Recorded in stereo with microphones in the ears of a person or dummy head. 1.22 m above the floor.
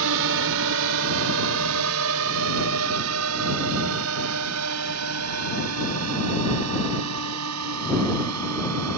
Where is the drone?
70° right (ahead or behind); by 9.0 s 85° right.